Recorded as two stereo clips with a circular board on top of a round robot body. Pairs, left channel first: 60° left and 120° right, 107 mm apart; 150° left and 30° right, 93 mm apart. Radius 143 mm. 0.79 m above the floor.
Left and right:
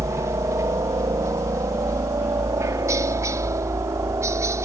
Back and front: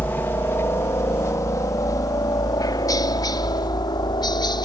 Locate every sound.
0.0 s a helicopter: 155° right; by 4.7 s straight behind